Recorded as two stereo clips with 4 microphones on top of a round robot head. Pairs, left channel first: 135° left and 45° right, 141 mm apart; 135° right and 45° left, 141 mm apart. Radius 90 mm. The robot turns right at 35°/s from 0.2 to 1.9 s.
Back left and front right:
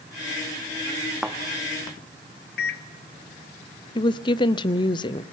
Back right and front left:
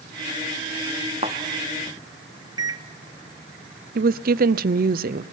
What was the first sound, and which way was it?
A thud, 40° left.